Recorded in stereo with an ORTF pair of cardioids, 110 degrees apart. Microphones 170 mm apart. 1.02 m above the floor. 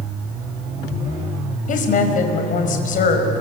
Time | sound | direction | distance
1.7 | a woman speaking | 55° left | 5 m